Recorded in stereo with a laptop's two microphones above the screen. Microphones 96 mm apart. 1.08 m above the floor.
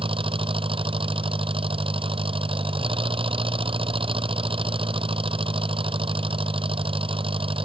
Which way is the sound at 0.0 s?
65° right (ahead or behind).